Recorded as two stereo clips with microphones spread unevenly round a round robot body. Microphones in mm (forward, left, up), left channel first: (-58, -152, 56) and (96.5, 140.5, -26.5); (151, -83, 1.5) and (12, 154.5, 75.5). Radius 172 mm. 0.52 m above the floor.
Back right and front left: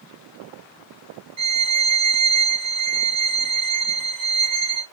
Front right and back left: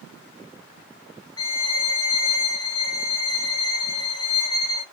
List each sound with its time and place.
1.4 s a violin: 5° left, 0.8 m